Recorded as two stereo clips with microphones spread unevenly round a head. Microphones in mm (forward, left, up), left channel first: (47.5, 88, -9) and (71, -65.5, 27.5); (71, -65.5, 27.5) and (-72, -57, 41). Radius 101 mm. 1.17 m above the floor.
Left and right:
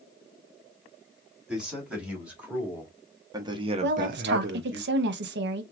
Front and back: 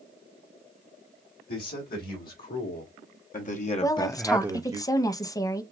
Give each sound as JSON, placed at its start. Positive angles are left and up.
{"t": 1.5, "sound": "a man speaking", "azimuth_deg": 5, "distance_m": 3.0}
{"t": 3.8, "sound": "a woman speaking", "azimuth_deg": -70, "distance_m": 0.9}